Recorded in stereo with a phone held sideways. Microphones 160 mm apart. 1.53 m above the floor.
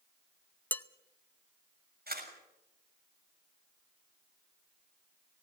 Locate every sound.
0.7 s dishes clattering: 10° left (ahead or behind), 0.8 m
2.1 s a camera shutter: 70° right (ahead or behind), 6.5 m